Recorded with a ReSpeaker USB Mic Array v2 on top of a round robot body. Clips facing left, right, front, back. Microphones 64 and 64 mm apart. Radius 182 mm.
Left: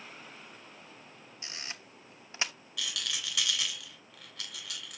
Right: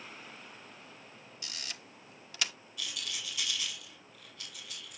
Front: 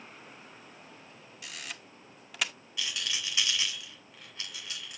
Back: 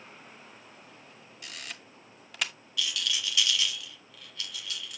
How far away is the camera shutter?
About 1.4 m.